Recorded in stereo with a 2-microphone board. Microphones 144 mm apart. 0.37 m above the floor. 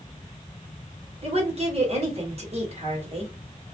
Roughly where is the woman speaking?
Right.